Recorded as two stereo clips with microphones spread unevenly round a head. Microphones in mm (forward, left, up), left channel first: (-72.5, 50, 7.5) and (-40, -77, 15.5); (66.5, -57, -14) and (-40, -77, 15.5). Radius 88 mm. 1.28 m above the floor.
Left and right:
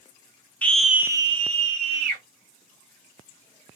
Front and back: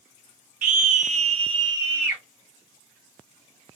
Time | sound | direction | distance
0.6 | a scream | straight behind | 0.6 m